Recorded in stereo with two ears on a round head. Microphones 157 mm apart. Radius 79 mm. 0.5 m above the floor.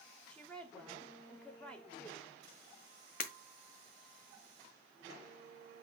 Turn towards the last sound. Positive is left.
turn(degrees=50)  # may be behind; listen again after turning